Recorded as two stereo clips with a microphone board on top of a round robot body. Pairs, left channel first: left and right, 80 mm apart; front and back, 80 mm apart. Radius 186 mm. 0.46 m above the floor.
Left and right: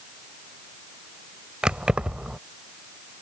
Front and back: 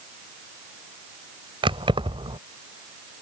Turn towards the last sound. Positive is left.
turn(degrees=-170)